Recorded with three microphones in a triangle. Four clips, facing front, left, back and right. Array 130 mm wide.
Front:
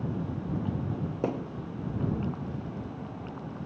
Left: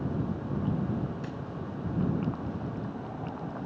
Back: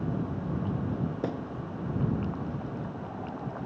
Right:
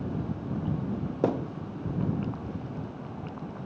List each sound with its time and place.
1.2 s a thud: 80° right